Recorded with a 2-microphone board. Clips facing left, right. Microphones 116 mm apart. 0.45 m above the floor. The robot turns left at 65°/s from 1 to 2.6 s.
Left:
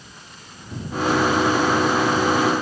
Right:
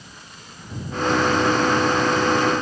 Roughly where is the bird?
No bird in this recording.